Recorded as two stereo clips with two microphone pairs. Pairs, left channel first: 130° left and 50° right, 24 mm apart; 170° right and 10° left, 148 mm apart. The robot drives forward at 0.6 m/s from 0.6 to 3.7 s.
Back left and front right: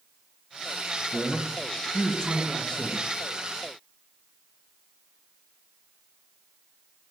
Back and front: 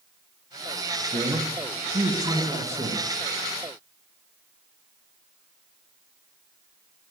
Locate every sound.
1.1 s a man speaking: 60° left, 3 m; by 3.0 s 85° left, 2.5 m